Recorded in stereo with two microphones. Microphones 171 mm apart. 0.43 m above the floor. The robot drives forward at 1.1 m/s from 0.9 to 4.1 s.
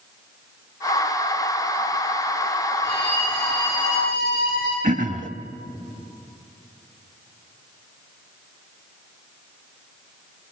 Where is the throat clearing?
50° right (ahead or behind), 0.7 m.